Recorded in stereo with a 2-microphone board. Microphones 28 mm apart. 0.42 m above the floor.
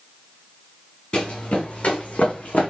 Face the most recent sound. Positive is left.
turn(degrees=70)  # may be behind; listen again after turning